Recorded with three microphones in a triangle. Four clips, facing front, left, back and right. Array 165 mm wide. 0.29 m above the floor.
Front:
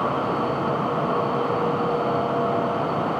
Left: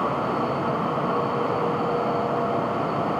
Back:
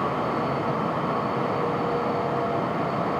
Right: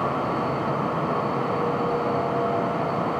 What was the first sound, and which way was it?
Only background noise.